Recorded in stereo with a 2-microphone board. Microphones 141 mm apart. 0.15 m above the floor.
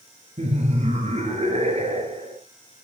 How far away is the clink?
No clink in this recording.